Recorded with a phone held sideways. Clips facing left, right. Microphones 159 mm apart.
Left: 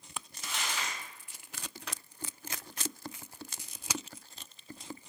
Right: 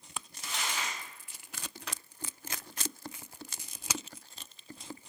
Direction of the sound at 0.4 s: 45° right (ahead or behind).